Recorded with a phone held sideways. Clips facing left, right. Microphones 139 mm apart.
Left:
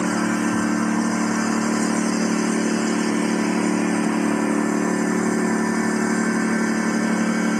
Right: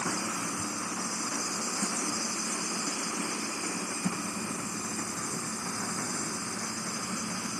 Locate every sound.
0.0 s a lawn mower: 80° left